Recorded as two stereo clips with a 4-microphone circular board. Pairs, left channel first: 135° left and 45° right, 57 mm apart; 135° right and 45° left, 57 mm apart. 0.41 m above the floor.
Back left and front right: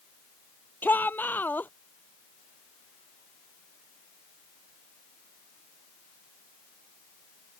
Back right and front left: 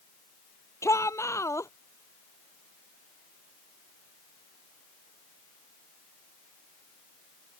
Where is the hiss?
No hiss in this recording.